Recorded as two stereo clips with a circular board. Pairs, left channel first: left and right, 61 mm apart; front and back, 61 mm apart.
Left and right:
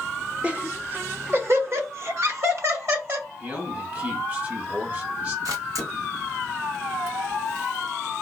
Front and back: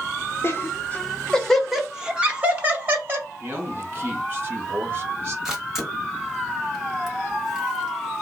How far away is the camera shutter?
About 1.6 m.